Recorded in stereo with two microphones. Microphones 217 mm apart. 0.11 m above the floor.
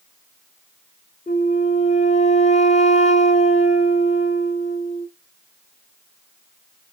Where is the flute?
35° left (ahead or behind), 1.5 m.